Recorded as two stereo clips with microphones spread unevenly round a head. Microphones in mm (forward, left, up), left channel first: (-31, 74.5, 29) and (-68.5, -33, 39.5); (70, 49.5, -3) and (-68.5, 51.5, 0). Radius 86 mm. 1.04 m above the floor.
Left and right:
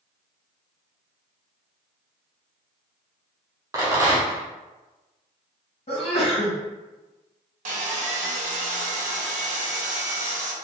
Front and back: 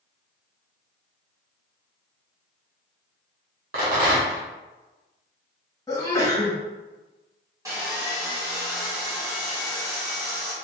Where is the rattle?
160° right, 1.1 m.